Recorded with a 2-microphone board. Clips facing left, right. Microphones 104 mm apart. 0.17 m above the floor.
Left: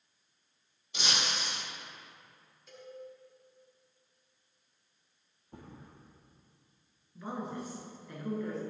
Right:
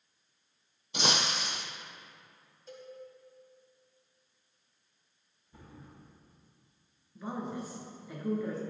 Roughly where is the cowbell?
Right.